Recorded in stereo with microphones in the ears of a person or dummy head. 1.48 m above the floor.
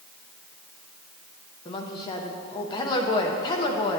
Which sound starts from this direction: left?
A woman speaking, at 1.6 s.